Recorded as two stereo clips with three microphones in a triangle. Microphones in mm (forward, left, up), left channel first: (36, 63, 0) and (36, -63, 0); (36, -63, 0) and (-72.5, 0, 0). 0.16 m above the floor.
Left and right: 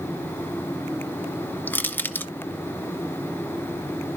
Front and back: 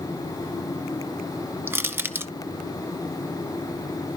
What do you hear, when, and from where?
1.7 s crushing: 125° left, 0.6 m